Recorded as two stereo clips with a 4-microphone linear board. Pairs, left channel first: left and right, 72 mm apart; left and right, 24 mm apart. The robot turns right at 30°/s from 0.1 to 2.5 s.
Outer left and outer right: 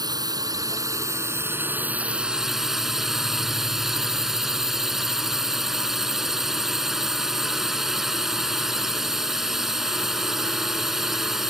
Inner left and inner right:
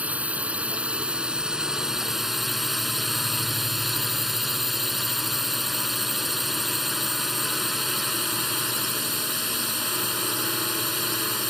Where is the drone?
75° right; by 11.5 s 5° right.